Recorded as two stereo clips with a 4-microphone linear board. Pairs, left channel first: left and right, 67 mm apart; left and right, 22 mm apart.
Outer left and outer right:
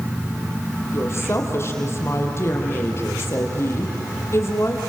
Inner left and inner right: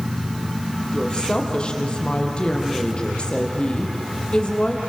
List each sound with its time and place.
0.9 s a woman speaking: 40° left (ahead or behind), 4 m